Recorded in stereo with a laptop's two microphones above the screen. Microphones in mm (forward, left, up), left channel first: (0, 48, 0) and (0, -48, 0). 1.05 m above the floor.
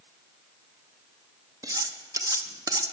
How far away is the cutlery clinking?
About 0.7 m.